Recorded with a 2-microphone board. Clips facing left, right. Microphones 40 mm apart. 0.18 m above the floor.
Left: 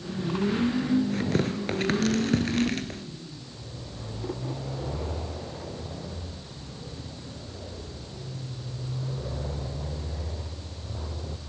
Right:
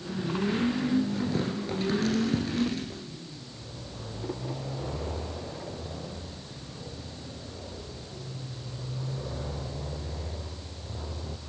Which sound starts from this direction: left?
Tearing paper, at 1.1 s.